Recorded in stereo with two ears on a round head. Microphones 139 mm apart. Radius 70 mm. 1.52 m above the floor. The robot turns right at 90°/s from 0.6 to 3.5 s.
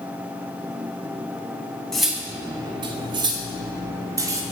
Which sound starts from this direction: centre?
Cutlery clinking, at 1.9 s.